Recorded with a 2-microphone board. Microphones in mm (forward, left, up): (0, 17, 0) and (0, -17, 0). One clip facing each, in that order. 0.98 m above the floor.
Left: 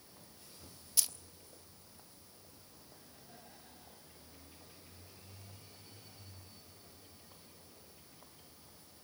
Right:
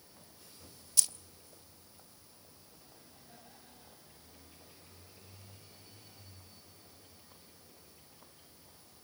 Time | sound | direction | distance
1.0 | keys jangling | 10° left (ahead or behind) | 0.5 m